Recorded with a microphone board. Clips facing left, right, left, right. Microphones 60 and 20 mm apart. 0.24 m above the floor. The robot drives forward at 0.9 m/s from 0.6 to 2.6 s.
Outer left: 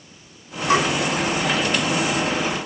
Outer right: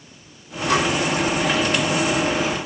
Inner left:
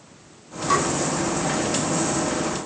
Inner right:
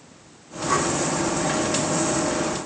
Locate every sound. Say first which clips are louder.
0.7 s tapping: outer left 1 dB, inner left 1 dB; 30° left (ahead or behind), 3.5 m